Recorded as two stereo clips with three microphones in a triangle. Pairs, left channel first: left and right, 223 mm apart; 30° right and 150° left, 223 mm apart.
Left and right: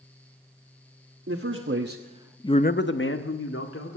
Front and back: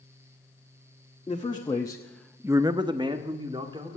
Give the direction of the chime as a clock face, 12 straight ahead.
No chime in this recording.